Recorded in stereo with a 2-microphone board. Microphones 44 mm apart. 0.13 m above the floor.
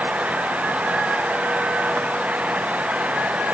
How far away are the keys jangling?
I don't hear keys jangling.